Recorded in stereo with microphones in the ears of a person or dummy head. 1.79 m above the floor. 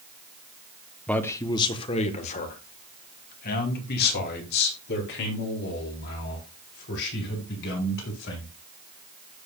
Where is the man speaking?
10° left (ahead or behind), 1.1 m; by 8.5 s 75° left (ahead or behind), 6.5 m.